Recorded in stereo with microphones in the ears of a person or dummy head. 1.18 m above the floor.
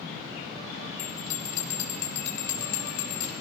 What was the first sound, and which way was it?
A bell, 70° left (ahead or behind).